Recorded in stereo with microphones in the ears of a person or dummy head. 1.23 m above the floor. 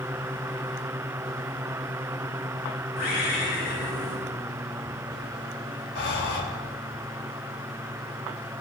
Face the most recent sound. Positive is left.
turn(degrees=60)  # may be behind; listen again after turning